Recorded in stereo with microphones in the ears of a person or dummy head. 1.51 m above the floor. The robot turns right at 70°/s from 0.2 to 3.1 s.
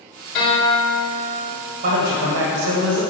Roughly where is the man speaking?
Behind right.